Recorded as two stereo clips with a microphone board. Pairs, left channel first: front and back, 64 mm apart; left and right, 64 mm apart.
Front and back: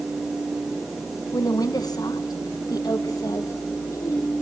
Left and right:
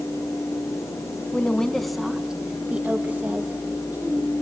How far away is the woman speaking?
About 1.6 m.